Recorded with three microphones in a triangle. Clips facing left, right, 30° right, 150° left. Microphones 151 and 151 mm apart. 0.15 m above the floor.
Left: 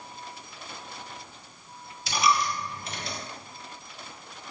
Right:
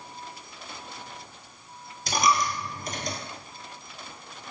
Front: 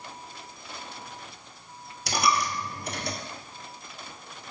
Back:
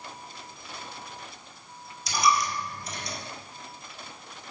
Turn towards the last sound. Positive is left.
turn(degrees=-45)